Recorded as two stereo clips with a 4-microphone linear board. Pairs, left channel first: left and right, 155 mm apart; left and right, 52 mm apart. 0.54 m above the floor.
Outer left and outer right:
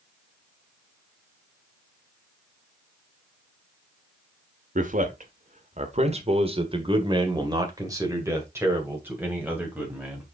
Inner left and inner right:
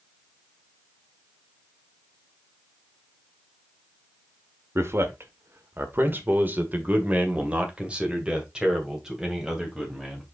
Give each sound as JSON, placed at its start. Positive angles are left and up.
{"t": 4.8, "sound": "a man speaking", "side_deg": -60, "distance_m": 1.4}